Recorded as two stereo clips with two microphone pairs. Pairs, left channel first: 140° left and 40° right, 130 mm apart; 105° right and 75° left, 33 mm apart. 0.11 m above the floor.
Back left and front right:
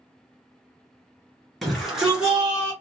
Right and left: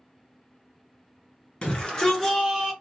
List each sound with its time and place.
1.6 s a shout: 125° right, 1.6 m; by 2.7 s 10° left, 1.4 m